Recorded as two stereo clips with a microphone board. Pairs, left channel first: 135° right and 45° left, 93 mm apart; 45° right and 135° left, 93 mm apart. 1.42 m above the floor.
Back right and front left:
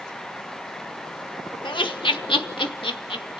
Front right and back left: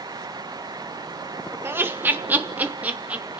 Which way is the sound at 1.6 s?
160° right.